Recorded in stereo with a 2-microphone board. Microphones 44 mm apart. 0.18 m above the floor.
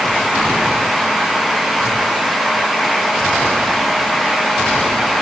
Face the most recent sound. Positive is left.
No sound to turn to.